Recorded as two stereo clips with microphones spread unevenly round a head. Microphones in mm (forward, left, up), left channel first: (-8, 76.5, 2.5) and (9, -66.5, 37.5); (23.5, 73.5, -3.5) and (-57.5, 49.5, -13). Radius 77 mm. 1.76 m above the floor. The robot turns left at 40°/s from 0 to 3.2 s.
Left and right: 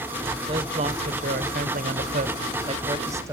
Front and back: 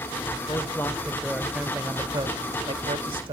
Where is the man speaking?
35° right, 1.0 m; by 3.3 s 145° right, 1.0 m.